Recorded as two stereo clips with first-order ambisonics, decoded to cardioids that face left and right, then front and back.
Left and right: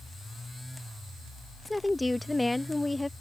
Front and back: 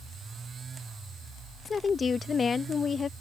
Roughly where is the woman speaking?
Ahead.